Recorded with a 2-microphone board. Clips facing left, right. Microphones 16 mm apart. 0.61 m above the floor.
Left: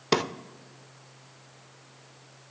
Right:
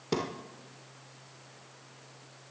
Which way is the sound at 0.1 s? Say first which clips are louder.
Left 7 dB; 40° left (ahead or behind).